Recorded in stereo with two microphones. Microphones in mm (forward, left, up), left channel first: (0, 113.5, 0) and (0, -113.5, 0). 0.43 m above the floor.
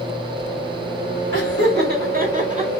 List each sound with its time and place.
1.3 s laughter: 55° right (ahead or behind), 1.6 m; by 2.7 s 30° right (ahead or behind), 1.2 m